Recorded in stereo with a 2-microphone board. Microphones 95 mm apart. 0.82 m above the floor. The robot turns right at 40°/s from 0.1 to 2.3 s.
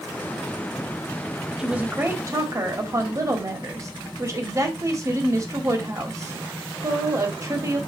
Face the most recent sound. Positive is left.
turn(degrees=-35)  # may be behind; listen again after turning